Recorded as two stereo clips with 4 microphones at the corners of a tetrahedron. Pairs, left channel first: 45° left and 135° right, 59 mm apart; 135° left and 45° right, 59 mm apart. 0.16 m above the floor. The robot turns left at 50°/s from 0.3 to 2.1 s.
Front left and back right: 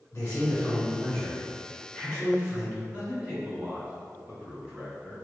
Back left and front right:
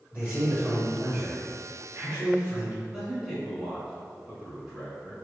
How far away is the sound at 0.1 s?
About 1.3 m.